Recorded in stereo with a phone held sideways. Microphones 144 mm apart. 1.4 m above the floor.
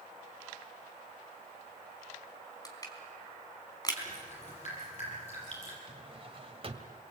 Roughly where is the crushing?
Left.